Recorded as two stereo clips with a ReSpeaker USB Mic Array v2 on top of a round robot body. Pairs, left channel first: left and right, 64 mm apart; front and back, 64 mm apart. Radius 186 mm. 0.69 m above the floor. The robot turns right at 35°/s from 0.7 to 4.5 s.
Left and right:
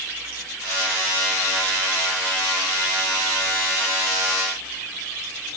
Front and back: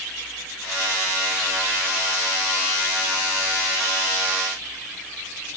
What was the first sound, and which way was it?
Only background noise.